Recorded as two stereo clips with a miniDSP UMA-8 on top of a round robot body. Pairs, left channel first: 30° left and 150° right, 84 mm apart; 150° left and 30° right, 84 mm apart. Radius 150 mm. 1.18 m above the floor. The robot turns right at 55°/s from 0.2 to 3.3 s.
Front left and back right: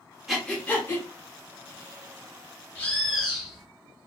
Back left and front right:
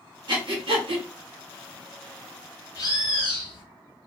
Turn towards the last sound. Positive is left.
turn(degrees=130)